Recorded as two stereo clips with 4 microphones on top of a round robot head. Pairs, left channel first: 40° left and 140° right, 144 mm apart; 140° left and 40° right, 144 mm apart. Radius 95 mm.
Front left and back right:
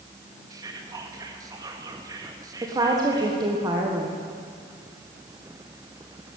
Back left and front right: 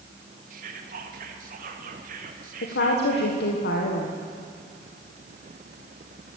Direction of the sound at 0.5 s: 75° right.